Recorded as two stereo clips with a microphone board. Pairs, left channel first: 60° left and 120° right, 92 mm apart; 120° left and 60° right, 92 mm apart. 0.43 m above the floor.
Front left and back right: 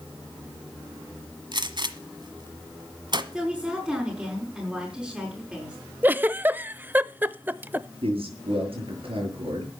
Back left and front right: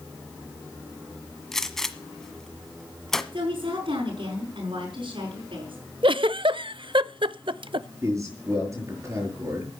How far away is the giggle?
About 0.5 m.